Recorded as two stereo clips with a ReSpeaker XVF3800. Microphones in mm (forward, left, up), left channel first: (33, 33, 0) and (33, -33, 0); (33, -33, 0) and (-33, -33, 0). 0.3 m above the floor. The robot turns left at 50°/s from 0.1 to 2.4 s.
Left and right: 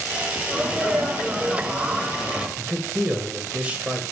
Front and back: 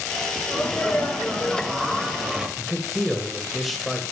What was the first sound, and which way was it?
A sneeze, 35° right.